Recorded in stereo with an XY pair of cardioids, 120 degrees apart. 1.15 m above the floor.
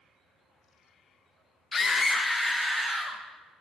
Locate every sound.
1.7 s a scream: 35° left, 0.7 m; by 3.2 s 10° right, 1.4 m